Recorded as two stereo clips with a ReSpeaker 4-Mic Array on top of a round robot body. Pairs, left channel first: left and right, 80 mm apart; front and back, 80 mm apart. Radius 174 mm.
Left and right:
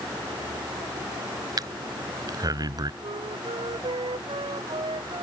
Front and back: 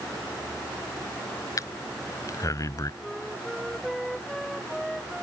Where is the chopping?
No chopping in this recording.